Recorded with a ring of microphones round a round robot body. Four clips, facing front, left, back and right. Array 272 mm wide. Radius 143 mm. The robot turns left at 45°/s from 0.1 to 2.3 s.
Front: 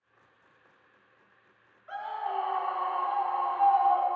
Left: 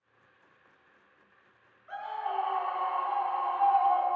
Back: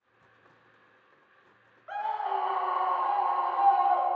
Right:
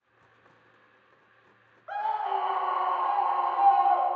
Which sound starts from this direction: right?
A scream, at 1.9 s.